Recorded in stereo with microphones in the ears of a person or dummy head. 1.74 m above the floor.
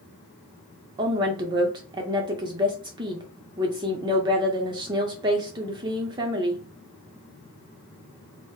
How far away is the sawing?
No sawing in this recording.